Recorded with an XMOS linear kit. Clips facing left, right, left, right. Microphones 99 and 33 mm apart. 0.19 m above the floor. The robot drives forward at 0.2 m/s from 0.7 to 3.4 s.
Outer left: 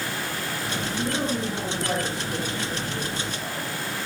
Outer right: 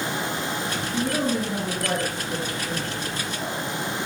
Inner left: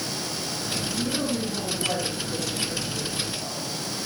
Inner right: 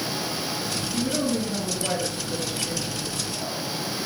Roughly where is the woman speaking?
Right.